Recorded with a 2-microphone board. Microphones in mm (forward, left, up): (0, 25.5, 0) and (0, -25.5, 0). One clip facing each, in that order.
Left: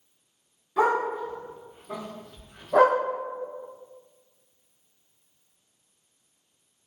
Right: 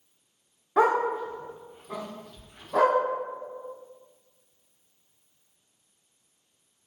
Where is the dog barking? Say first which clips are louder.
Right 1 dB; 50° right (ahead or behind), 0.8 m; by 3.0 s 35° left (ahead or behind), 1.3 m.